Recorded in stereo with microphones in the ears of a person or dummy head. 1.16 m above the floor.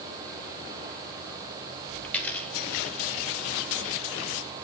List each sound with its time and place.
2.0 s a dropped coin: 10° left (ahead or behind), 3 m